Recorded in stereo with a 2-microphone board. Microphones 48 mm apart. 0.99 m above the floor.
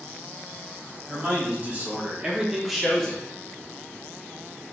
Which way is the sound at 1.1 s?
35° right (ahead or behind).